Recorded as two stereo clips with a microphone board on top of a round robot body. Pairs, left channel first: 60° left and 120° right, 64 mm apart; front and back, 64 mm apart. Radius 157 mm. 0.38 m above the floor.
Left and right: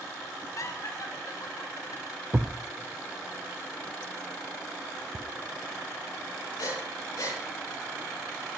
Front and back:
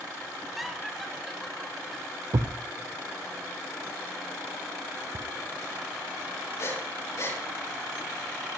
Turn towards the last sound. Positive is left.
turn(degrees=35)